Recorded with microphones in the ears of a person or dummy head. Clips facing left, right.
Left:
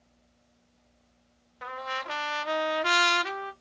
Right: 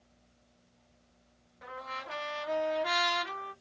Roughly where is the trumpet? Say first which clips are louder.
Left 6 dB; left.